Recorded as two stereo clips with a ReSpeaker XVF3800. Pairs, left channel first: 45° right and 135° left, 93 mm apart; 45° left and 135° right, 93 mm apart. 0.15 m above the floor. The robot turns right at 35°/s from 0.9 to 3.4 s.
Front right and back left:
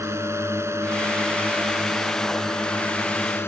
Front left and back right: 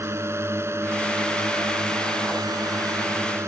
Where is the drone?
Straight behind; by 3.5 s 95° right.